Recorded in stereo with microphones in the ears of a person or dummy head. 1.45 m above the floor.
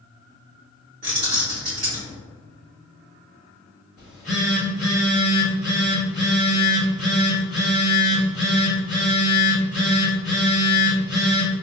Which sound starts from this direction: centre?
A phone buzzing, at 4.0 s.